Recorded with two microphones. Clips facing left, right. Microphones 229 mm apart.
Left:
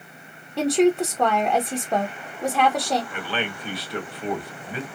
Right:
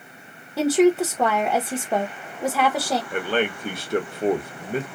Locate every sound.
0.6 s a woman speaking: 5° right (ahead or behind), 0.6 m
3.1 s a man speaking: 45° right (ahead or behind), 0.9 m